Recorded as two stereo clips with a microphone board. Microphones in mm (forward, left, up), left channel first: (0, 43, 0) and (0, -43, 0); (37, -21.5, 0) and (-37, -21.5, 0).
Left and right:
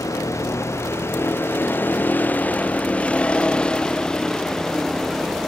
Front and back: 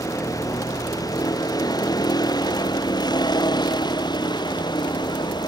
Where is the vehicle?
40° left; by 5.5 s straight ahead.